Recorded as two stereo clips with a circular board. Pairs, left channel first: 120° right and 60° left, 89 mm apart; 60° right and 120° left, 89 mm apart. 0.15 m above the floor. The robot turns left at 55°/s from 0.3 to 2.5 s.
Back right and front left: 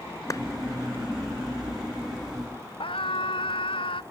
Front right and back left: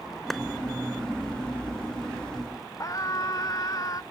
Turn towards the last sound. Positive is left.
turn(degrees=-110)